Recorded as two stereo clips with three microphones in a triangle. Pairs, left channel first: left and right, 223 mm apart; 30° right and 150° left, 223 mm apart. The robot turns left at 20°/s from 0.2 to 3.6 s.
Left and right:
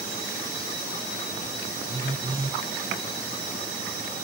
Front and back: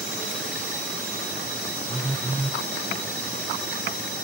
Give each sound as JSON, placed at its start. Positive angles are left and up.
{"t": 1.9, "sound": "a phone buzzing", "azimuth_deg": -125, "distance_m": 0.7}